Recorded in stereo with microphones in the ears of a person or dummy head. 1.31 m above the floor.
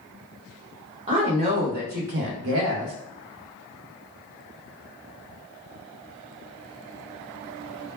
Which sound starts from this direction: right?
A woman speaking, at 1.1 s.